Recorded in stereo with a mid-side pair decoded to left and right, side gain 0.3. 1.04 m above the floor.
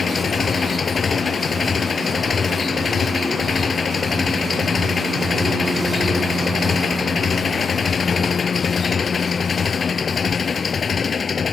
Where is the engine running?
55° left.